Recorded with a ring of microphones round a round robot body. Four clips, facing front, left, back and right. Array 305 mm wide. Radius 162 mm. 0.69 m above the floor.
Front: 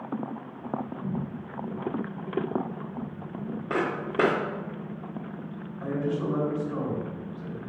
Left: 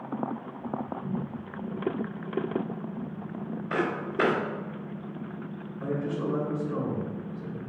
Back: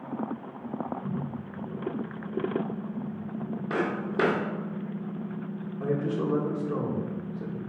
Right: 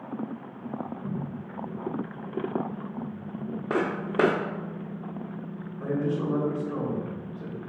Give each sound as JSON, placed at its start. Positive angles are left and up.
{"t": 3.7, "sound": "footsteps", "azimuth_deg": -80, "distance_m": 1.0}
{"t": 5.8, "sound": "a man speaking", "azimuth_deg": -175, "distance_m": 1.6}